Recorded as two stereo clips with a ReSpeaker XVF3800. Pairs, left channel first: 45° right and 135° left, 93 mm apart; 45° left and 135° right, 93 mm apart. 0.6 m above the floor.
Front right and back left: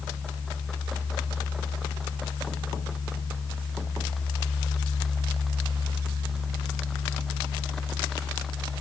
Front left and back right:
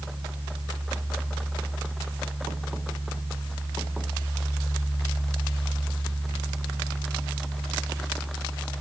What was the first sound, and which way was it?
Only background noise.